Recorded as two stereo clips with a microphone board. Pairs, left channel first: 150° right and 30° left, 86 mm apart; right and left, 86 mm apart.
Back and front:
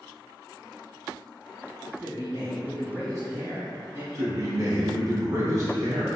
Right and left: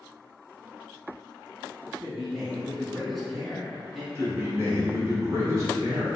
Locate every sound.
2.0 s a man speaking: 5° left, 1.8 m
4.2 s a man speaking: 55° left, 1.3 m